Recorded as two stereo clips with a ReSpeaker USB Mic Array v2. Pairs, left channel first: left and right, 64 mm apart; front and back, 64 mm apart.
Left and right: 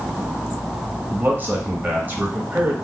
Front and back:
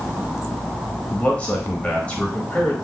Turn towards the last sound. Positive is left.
turn(degrees=-55)